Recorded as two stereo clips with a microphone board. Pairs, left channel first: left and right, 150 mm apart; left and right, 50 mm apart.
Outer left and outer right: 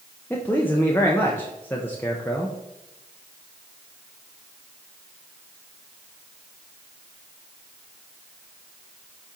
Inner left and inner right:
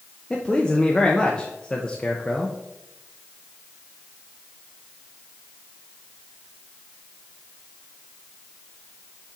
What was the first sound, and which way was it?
A man speaking, 15° left (ahead or behind).